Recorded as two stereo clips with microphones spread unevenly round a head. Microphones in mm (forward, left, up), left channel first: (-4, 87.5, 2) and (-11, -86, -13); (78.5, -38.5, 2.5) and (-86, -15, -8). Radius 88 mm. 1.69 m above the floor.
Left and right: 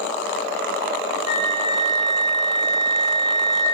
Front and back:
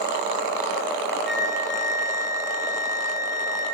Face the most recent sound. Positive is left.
turn(degrees=-20)